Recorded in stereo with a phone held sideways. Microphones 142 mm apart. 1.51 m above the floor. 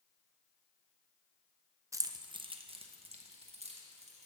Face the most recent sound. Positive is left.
turn(degrees=-50)  # may be behind; listen again after turning